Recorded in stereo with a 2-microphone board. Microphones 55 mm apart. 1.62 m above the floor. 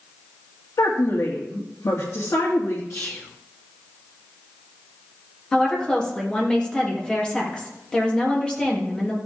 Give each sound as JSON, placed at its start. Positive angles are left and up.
{"t": 0.8, "sound": "a woman speaking", "side_deg": 80, "distance_m": 2.5}
{"t": 2.9, "sound": "whispering", "side_deg": 60, "distance_m": 1.1}
{"t": 5.5, "sound": "a woman speaking", "side_deg": 15, "distance_m": 3.0}